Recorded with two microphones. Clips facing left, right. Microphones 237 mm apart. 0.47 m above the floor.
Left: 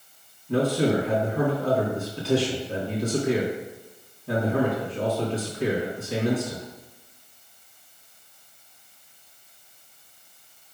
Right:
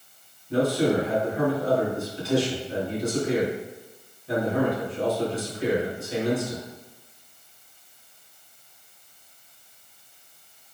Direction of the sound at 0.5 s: 70° left (ahead or behind).